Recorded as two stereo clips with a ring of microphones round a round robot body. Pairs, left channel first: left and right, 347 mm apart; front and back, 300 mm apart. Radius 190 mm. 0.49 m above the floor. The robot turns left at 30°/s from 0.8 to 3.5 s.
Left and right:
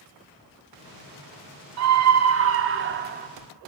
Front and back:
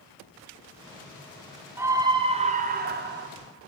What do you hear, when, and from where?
1.8 s a scream: 100° right, 1.6 m; by 3.3 s 145° right, 1.6 m